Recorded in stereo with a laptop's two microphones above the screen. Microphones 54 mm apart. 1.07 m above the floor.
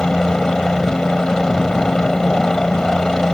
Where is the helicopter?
10° left (ahead or behind).